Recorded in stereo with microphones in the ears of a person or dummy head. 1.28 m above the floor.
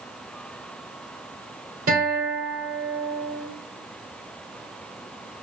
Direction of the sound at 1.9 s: 45° right (ahead or behind).